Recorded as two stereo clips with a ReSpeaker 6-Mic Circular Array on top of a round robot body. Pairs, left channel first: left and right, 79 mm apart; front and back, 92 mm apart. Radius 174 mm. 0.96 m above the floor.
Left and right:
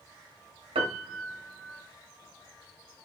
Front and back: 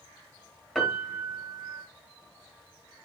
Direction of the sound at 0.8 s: 90° right.